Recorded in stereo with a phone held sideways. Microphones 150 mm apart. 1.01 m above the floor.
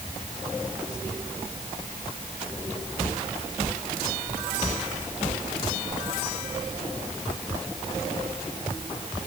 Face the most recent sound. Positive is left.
No sound to turn to.